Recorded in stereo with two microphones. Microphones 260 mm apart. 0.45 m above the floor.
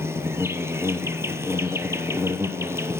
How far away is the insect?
About 0.8 m.